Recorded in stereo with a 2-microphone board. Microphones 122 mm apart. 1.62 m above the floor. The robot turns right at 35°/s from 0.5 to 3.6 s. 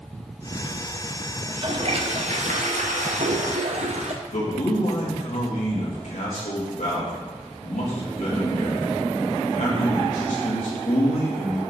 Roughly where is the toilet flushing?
Behind right.